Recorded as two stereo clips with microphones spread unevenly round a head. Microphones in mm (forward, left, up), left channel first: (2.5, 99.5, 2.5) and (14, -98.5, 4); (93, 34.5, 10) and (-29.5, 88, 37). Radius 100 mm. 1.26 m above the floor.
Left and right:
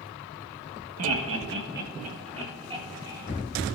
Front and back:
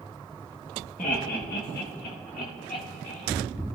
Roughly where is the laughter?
Right.